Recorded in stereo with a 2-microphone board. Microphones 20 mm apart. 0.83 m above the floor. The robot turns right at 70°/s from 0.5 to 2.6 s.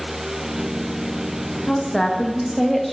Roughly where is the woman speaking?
Behind left.